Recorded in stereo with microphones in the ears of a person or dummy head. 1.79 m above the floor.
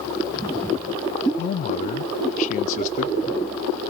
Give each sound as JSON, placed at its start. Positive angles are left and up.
{"t": 1.4, "sound": "a man speaking", "side_deg": 45, "distance_m": 0.8}